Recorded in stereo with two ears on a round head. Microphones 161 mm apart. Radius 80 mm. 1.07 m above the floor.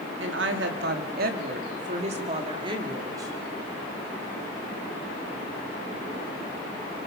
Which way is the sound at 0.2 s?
75° right (ahead or behind).